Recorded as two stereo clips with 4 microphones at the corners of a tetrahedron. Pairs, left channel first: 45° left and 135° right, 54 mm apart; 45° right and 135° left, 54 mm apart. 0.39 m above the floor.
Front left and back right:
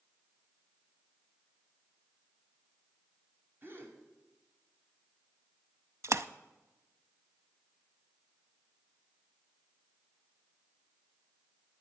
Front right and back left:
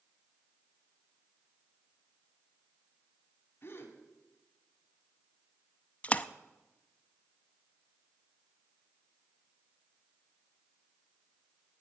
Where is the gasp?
95° right, 2 m.